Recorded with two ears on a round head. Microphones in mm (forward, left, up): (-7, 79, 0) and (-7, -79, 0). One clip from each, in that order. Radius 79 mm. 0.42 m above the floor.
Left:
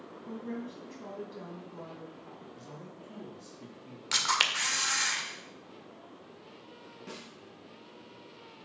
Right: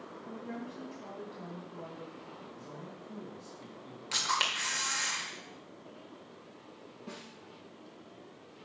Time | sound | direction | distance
0.3 | a woman speaking | 20° left (ahead or behind) | 3 m
2.5 | a man speaking | 20° left (ahead or behind) | 3.5 m
4.1 | a camera shutter | 35° left (ahead or behind) | 1.4 m
7.1 | a snare drum | 35° left (ahead or behind) | 3 m